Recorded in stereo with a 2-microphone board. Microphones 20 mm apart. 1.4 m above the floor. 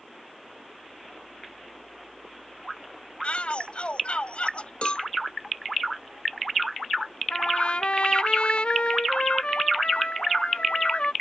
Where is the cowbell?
55° left (ahead or behind).